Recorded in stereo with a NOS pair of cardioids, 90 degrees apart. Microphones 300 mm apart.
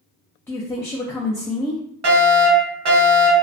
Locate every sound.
0.5 s a woman speaking: 10° left, 0.5 m
2.0 s a fire alarm: 70° right, 1.6 m